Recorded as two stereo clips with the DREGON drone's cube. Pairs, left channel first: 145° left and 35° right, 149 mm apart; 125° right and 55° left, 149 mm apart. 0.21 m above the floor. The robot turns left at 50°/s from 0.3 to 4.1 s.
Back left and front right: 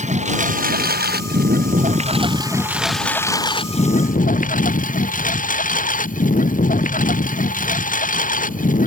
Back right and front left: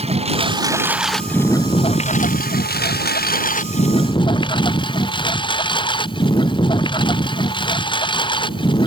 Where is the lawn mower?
5° left; by 8.9 s 175° left.